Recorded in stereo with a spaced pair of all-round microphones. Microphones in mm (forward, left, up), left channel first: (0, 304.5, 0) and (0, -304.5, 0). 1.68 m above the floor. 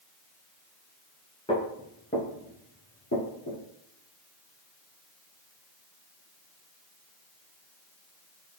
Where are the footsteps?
10° left (ahead or behind), 1.7 m; by 3.6 s 35° left (ahead or behind), 2 m.